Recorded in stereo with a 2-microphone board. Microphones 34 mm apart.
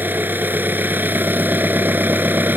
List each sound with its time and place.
0.0 s an engine running: 75° right (ahead or behind)